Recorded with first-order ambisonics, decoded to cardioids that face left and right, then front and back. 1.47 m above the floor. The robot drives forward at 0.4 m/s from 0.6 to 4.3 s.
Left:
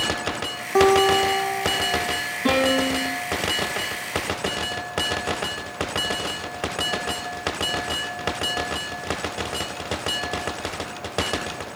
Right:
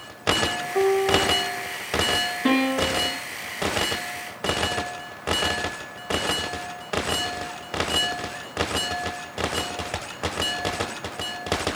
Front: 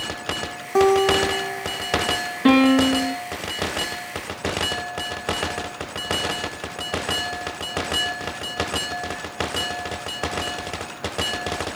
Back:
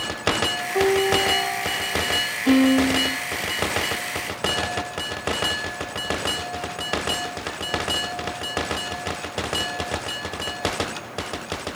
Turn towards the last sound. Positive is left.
turn(degrees=-5)